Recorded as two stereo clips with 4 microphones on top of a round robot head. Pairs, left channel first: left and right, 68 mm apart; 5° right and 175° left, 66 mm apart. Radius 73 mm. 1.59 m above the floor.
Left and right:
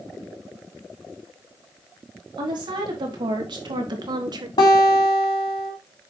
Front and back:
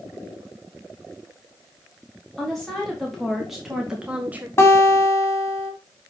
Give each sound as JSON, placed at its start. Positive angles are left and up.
{"t": 2.4, "sound": "a woman speaking", "azimuth_deg": -90, "distance_m": 4.0}
{"t": 4.6, "sound": "a guitar", "azimuth_deg": 50, "distance_m": 3.0}